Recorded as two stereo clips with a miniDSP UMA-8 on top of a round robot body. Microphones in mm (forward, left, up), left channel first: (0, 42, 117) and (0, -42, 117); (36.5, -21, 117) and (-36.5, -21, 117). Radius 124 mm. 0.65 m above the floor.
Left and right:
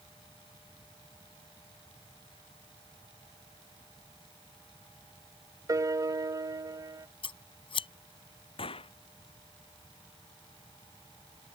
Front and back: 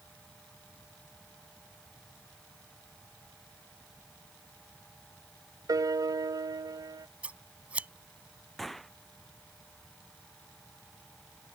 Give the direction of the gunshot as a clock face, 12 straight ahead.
9 o'clock.